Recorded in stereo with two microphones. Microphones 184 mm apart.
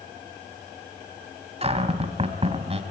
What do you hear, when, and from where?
1.6 s a cupboard door: 35° right (ahead or behind), 1.5 m